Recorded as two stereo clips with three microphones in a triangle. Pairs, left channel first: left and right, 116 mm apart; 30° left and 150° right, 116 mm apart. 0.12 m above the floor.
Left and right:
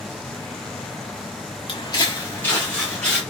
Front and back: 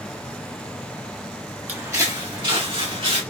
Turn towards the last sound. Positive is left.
turn(degrees=170)